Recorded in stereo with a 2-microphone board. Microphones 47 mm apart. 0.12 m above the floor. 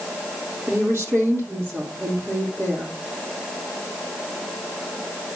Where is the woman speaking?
60° right (ahead or behind), 3.5 m.